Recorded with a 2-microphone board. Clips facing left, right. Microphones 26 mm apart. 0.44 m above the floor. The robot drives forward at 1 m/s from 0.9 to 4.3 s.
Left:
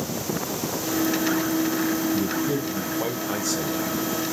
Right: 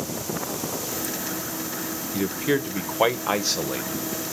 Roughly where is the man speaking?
Right.